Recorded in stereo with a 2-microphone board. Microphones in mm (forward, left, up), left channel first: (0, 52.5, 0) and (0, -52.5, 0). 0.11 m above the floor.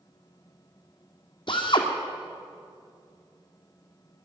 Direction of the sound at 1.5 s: 55° left (ahead or behind).